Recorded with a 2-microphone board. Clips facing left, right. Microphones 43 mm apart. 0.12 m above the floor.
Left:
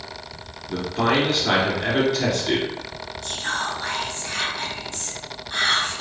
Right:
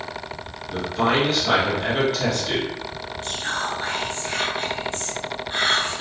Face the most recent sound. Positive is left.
turn(degrees=-20)  # may be behind; listen again after turning